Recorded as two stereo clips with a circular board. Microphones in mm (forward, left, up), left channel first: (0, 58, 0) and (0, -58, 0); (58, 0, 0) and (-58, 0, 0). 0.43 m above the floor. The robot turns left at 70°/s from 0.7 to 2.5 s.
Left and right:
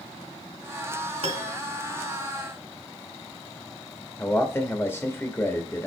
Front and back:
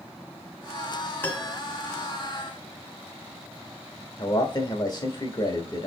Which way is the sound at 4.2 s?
30° left.